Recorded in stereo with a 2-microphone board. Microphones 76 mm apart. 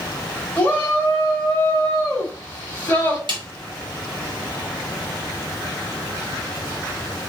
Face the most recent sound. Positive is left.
turn(degrees=-85)